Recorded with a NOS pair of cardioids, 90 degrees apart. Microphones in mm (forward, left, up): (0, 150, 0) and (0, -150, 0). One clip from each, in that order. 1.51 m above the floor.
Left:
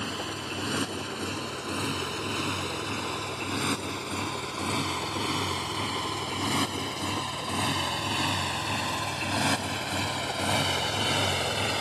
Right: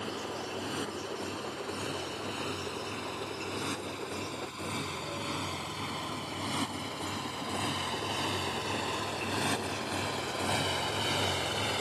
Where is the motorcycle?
55° left; by 11.8 s 30° left.